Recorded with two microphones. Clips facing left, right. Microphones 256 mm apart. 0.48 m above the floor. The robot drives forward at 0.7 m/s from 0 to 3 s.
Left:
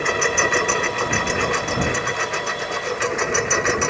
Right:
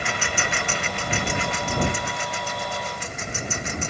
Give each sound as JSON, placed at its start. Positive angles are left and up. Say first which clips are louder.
{"t": 0.0, "sound": "a lawn mower", "louder": "left 9 dB", "side_deg": 60}